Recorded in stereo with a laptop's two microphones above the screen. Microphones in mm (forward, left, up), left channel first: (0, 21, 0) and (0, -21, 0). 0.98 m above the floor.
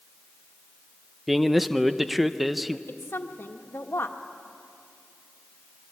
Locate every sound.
1.3 s a man speaking: centre (ahead or behind), 0.7 m
2.9 s a woman speaking: 65° left (ahead or behind), 1.6 m